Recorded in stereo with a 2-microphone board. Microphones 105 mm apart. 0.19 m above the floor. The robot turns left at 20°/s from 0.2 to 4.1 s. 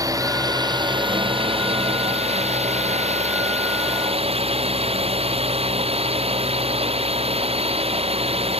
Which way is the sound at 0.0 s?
35° right.